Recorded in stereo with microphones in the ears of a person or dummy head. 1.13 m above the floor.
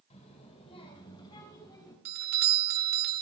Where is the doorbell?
40° right (ahead or behind), 0.5 m.